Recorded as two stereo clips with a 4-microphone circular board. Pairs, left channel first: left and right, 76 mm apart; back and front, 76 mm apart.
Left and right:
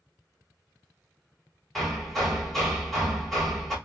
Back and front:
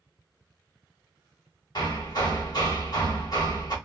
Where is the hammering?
175° left, 1.4 m.